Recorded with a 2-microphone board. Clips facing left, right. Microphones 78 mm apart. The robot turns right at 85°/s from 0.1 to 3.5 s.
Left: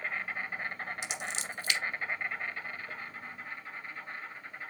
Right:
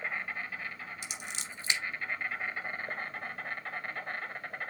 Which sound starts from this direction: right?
Scissors, at 1.0 s.